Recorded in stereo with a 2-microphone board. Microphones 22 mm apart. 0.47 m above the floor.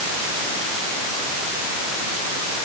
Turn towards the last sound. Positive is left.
No sound to turn to.